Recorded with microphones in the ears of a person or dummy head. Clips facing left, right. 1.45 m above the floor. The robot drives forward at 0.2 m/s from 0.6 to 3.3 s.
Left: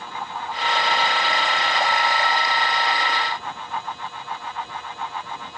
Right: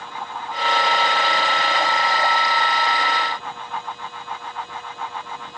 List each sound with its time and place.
Only background noise.